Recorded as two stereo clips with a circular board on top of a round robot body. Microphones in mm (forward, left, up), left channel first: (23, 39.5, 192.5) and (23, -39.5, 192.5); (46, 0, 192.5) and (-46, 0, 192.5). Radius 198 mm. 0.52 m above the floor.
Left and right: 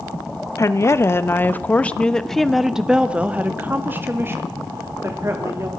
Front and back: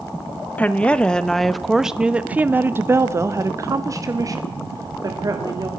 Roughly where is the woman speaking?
Ahead left.